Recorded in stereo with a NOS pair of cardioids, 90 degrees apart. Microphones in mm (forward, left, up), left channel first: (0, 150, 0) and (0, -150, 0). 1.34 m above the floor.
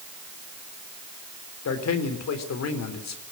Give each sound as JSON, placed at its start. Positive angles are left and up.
{"t": 1.6, "sound": "a man speaking", "azimuth_deg": 60, "distance_m": 3.5}